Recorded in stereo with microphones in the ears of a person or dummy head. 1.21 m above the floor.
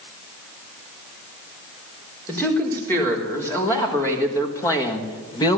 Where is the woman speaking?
15° left (ahead or behind), 4 m; by 5.6 s 30° left (ahead or behind), 1.4 m.